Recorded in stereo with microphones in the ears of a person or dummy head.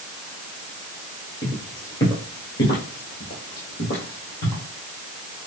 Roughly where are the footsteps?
Centre.